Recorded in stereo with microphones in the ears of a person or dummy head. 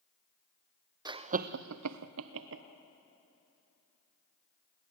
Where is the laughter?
15° right (ahead or behind), 0.7 m; by 2.6 s 65° right (ahead or behind), 1.0 m.